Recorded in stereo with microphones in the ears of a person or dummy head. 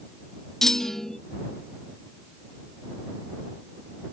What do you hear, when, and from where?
0.6 s a clunk: centre (ahead or behind)